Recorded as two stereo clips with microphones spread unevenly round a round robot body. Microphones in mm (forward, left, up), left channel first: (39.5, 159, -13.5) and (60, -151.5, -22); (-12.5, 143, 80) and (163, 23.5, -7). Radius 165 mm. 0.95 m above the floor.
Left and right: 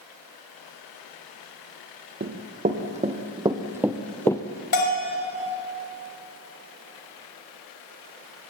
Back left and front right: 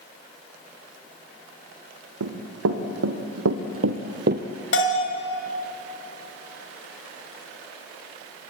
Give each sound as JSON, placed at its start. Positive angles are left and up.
{"t": 2.2, "sound": "running footsteps", "azimuth_deg": -25, "distance_m": 3.0}
{"t": 4.7, "sound": "a bell", "azimuth_deg": 130, "distance_m": 3.5}